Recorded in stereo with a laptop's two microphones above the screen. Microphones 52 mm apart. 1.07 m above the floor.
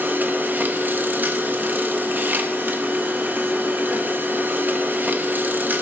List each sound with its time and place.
0.0 s a machine running: 35° right (ahead or behind), 1.0 m